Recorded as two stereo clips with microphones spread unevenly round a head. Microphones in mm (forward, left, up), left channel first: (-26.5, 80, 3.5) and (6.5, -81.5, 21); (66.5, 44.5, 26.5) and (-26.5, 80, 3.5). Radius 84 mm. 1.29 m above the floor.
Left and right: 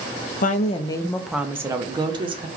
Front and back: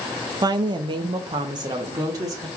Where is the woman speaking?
125° left, 0.5 m; by 2.5 s 140° right, 1.1 m.